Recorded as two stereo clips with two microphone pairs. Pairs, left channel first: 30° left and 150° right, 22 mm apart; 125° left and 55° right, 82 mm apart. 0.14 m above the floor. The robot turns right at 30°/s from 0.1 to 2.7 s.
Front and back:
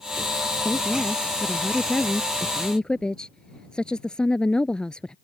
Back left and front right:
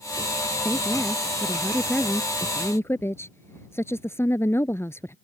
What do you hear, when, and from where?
0.7 s a woman speaking: 15° left; by 5.2 s 75° left